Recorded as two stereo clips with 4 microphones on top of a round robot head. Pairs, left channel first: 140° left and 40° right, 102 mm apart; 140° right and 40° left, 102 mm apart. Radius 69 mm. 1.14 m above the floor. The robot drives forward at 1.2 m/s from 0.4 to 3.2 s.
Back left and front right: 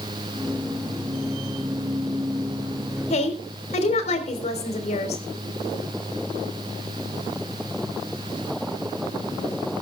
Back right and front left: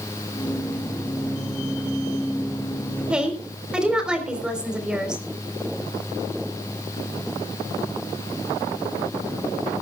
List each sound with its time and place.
3.1 s a woman speaking: 120° left, 4 m